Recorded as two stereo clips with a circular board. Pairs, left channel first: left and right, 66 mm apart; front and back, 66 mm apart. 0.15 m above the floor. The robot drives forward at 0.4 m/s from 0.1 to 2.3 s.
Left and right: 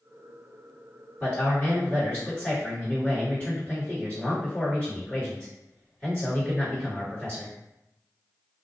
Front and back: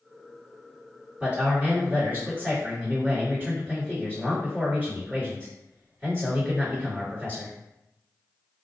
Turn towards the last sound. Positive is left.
turn(degrees=140)